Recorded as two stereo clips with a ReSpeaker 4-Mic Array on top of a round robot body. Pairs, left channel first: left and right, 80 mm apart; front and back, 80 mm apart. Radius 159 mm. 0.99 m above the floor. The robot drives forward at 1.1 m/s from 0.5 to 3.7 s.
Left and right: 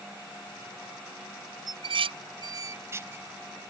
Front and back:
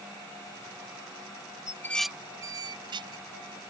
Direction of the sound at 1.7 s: 55° right.